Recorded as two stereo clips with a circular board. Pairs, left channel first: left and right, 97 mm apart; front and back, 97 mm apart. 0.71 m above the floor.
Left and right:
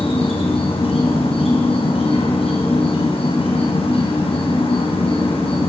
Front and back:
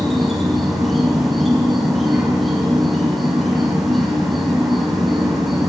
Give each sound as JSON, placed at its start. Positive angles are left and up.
{"t": 0.0, "sound": "an insect", "azimuth_deg": 90, "distance_m": 4.0}